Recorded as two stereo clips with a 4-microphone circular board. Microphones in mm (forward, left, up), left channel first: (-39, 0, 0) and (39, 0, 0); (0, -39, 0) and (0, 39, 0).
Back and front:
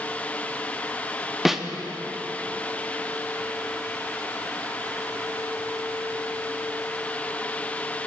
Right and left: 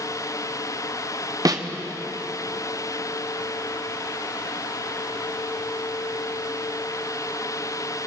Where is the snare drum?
85° left, 0.5 m.